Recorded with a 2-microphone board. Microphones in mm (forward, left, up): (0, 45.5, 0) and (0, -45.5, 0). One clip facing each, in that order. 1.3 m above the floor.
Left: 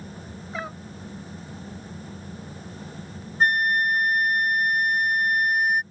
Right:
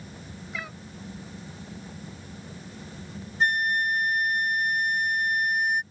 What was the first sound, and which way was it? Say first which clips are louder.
A cat meowing: left 5 dB; 35° left (ahead or behind).